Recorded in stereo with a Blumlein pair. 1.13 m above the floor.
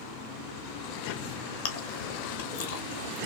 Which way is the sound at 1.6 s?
55° left.